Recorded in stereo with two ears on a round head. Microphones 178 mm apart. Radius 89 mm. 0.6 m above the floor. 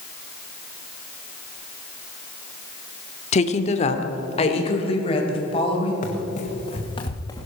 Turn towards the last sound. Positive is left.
turn(degrees=15)  # may be behind; listen again after turning